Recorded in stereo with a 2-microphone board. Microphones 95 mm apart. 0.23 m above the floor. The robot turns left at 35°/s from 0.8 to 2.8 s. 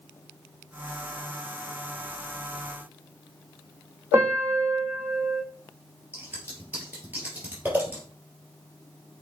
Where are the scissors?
20° right (ahead or behind), 3.5 m.